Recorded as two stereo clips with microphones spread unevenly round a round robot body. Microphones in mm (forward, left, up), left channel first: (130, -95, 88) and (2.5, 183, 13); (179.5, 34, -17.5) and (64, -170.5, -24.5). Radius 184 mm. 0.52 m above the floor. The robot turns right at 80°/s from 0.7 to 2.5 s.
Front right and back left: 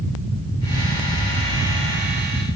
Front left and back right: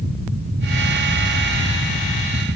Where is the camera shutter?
I don't hear a camera shutter.